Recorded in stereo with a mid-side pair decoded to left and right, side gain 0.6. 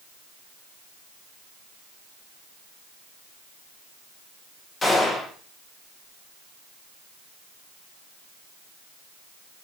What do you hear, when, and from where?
4.8 s a gunshot: 15° left, 3 m